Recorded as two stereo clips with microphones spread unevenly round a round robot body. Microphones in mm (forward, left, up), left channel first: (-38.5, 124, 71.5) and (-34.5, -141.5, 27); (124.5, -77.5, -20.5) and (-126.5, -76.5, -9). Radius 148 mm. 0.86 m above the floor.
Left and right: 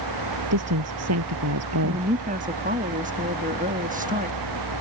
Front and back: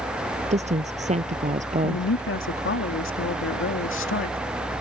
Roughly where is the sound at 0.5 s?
Behind right.